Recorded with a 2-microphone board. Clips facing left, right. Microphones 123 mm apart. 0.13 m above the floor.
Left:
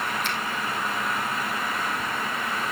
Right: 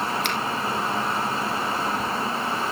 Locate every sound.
0.2 s a finger snap: 75° right (ahead or behind), 3.5 m